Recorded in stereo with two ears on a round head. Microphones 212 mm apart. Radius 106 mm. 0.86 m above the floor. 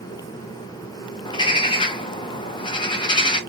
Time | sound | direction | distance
1.2 | a bird | 20° left (ahead or behind) | 0.7 m